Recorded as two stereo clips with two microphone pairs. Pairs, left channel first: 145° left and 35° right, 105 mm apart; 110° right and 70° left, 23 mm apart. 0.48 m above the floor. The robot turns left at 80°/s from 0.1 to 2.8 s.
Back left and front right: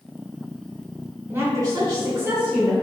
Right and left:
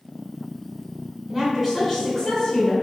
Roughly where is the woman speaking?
Ahead.